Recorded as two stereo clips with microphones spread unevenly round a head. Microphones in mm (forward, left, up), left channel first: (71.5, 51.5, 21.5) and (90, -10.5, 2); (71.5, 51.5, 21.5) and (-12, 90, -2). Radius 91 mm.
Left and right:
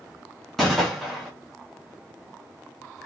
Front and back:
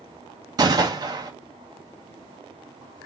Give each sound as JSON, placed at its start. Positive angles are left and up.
{"t": 0.6, "sound": "a gunshot", "azimuth_deg": -160, "distance_m": 0.6}